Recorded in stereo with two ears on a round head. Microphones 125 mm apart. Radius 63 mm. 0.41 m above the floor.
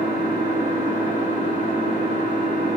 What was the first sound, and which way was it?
An engine running, 70° right (ahead or behind).